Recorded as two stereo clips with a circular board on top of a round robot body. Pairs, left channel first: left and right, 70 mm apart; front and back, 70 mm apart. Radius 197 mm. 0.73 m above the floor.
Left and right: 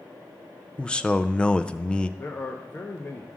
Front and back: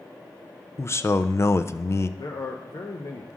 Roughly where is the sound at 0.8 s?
Ahead.